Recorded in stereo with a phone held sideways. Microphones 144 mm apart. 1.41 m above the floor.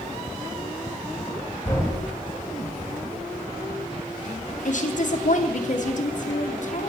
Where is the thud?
15° left (ahead or behind), 3.5 m.